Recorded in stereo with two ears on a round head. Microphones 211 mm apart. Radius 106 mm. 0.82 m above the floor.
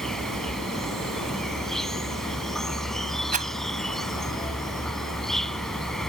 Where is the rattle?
35° right (ahead or behind).